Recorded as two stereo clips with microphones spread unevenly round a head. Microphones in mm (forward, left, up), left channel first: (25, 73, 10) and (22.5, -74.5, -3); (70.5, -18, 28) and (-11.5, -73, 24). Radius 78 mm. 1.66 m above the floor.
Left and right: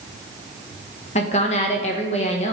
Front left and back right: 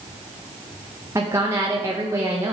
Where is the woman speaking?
140° left, 1.5 m.